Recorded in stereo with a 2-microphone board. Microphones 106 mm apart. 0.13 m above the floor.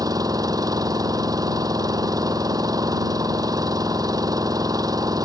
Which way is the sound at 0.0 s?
35° right (ahead or behind).